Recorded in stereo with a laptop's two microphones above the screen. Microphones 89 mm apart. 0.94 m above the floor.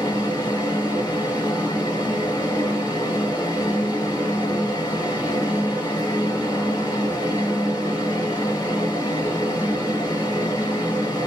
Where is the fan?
55° left (ahead or behind), 1.6 m.